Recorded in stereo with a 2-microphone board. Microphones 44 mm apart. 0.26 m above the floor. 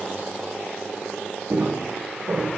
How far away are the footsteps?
About 1.3 m.